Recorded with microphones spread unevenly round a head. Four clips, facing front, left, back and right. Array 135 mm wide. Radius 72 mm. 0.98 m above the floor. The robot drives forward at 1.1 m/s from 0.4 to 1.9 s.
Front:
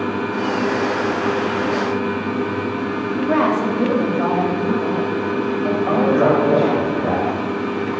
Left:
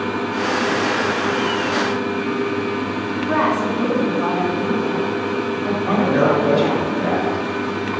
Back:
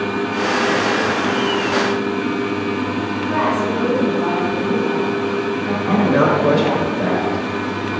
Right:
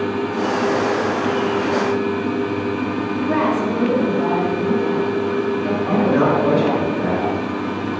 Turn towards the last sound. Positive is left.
turn(degrees=170)